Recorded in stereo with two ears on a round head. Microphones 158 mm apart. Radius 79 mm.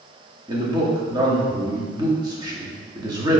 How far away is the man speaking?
About 1.7 m.